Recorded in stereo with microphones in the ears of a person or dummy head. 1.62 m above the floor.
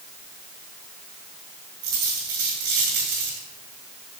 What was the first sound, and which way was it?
A dropped coin, 60° right (ahead or behind).